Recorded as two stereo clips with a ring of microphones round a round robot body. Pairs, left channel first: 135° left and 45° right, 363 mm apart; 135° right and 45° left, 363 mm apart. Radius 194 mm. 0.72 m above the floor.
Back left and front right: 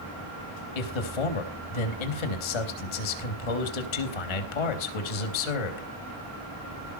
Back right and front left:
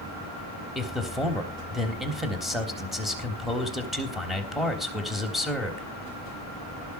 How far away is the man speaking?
About 3.5 m.